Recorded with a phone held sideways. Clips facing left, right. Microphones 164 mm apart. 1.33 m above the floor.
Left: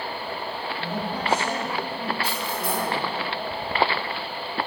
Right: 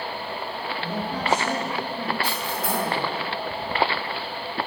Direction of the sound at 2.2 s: 80° right.